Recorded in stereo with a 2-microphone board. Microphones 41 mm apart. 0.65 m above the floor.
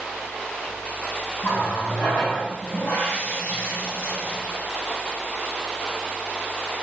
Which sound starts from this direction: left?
A running tap, at 1.4 s.